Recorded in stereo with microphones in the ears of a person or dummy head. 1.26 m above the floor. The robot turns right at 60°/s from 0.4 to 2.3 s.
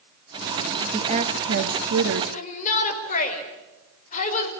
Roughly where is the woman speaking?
Behind.